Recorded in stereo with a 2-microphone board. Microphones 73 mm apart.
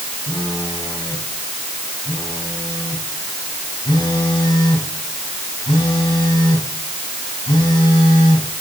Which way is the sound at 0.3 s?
75° left (ahead or behind).